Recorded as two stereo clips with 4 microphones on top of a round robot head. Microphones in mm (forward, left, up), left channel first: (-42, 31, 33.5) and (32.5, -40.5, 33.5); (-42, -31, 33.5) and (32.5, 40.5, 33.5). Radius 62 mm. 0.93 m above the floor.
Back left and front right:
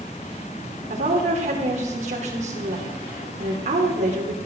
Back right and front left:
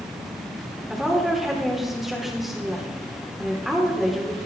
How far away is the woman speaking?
About 3 m.